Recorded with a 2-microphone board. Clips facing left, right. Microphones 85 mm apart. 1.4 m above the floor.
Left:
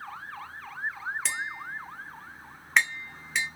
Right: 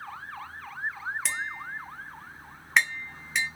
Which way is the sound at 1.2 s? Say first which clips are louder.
Even; centre (ahead or behind).